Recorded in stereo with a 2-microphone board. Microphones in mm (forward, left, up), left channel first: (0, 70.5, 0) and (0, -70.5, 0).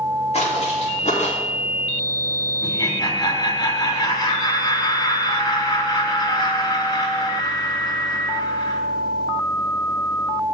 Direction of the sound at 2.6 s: 30° left (ahead or behind).